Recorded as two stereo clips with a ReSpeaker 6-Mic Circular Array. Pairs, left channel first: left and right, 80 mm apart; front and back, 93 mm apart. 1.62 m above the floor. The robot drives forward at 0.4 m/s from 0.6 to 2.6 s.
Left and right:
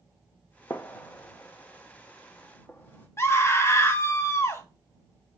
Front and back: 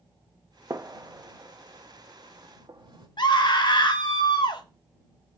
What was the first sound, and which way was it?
A gunshot, 130° left.